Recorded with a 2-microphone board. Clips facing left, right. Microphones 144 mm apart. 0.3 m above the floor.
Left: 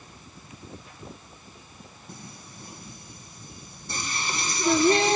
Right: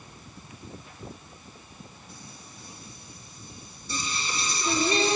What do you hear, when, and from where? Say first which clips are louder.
2.1 s singing: left 3 dB; 65° left (ahead or behind), 2.5 m